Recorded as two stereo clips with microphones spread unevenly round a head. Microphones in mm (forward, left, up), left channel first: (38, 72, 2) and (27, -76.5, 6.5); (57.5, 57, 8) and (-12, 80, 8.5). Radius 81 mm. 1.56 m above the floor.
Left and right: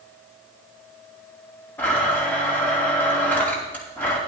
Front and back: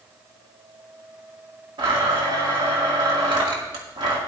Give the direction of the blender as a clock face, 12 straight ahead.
6 o'clock.